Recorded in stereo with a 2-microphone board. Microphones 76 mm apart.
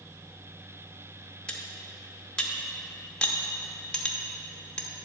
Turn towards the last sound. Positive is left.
turn(degrees=15)  # may be behind; listen again after turning